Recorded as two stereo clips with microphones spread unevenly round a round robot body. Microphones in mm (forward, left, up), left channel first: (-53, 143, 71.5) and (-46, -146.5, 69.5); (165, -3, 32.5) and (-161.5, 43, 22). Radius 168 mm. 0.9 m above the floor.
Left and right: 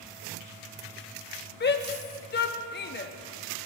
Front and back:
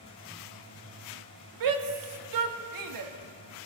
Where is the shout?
145° left, 1.4 m.